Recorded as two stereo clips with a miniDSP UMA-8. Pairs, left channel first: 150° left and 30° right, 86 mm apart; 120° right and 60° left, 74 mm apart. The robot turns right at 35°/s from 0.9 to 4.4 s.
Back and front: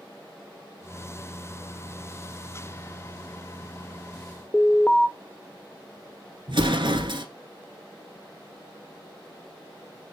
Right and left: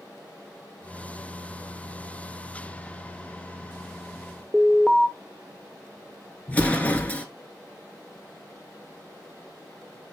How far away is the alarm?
About 0.5 m.